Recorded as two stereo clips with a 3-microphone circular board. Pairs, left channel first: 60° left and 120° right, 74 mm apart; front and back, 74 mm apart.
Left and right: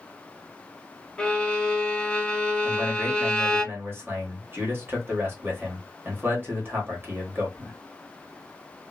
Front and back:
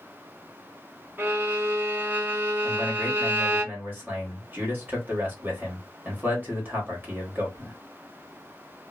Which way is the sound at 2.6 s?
150° right.